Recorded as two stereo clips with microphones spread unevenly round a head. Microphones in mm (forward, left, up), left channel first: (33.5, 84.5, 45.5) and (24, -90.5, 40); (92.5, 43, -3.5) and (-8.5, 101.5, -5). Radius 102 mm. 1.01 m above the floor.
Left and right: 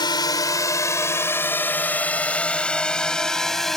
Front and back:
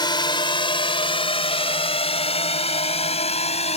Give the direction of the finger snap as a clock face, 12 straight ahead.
No finger snap in this recording.